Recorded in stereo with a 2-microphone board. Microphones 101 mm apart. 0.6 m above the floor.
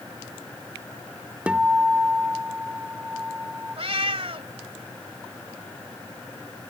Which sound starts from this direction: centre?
A guitar, at 1.5 s.